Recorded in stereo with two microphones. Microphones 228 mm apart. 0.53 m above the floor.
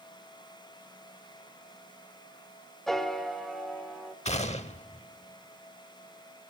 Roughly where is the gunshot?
Left.